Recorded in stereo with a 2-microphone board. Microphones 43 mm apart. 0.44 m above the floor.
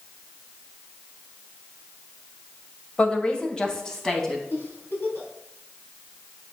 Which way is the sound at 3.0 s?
30° left (ahead or behind).